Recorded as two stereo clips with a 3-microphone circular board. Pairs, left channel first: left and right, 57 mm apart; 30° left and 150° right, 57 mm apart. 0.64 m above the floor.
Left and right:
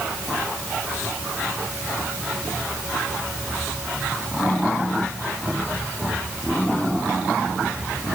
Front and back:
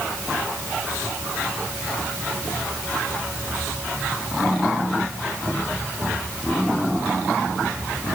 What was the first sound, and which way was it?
Only background noise.